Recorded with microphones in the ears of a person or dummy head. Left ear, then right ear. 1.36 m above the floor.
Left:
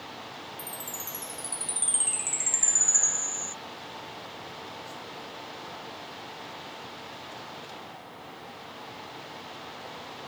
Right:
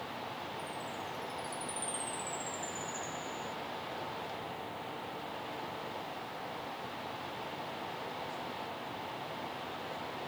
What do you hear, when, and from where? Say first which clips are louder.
0.6 s a chime: left 1 dB; 30° left (ahead or behind)